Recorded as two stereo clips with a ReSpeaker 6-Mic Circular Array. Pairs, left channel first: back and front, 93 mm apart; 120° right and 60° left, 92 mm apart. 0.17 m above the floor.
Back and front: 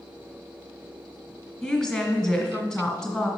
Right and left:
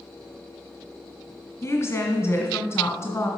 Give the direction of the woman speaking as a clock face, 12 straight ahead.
3 o'clock.